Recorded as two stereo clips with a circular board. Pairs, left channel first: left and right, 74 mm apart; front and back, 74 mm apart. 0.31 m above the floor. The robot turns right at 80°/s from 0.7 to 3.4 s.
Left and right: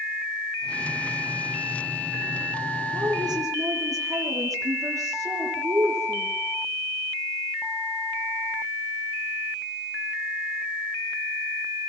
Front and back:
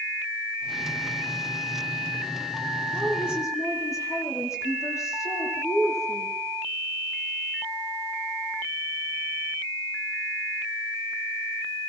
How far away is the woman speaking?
About 6.5 m.